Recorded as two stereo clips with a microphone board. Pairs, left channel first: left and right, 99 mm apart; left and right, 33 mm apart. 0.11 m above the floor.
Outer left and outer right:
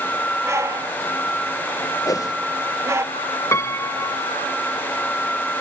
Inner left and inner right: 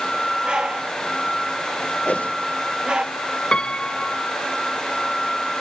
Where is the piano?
30° left (ahead or behind).